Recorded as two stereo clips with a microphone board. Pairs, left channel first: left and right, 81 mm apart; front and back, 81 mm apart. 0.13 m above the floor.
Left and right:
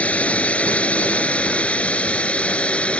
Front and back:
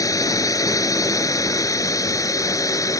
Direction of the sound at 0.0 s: 20° left.